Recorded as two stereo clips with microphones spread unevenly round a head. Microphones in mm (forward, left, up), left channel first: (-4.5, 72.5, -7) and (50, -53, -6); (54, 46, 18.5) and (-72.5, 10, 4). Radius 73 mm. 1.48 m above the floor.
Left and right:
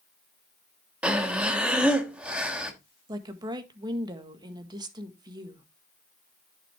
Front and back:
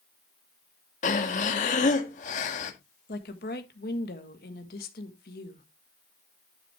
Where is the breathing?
15° left, 1.5 m.